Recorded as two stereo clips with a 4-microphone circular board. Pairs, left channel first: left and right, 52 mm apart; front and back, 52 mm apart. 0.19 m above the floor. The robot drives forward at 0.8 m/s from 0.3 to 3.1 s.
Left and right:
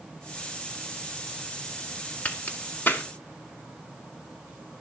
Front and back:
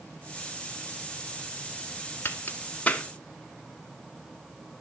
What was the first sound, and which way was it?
A crack, 40° left.